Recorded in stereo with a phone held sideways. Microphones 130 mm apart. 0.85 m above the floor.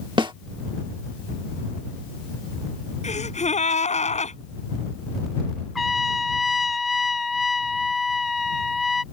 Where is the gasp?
65° left (ahead or behind).